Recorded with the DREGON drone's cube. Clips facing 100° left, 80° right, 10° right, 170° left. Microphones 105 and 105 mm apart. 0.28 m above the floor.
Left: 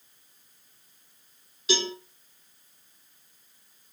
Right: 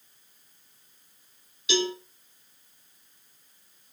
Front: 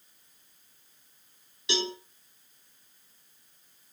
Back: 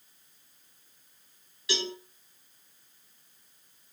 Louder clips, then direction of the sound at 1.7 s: Right 2 dB, front 2 dB; 50° left.